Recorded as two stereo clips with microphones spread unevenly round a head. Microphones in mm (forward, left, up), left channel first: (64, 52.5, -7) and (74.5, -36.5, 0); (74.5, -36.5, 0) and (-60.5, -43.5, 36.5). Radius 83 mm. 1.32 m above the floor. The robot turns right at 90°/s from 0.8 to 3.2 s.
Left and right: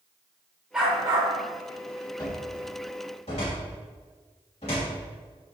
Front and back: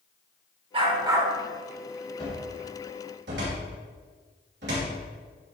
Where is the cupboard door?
60° left, 3 m; by 5.0 s 150° left, 3 m.